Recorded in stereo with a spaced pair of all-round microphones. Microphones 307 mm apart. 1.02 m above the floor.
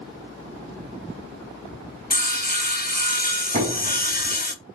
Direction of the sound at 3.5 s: 30° right (ahead or behind).